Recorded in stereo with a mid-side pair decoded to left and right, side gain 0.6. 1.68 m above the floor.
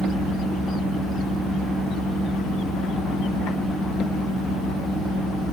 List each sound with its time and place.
0.0 s a fan: 15° left, 2.5 m